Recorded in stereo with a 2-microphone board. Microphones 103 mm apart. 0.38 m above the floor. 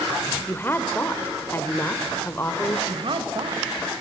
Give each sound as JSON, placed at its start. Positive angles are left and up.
{"t": 0.5, "sound": "a woman speaking", "side_deg": 20, "distance_m": 0.9}
{"t": 2.9, "sound": "a woman speaking", "side_deg": -55, "distance_m": 1.5}